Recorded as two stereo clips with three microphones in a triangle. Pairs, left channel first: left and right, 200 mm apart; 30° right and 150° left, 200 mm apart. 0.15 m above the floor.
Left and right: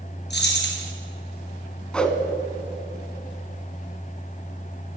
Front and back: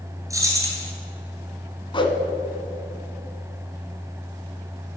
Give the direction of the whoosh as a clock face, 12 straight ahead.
12 o'clock.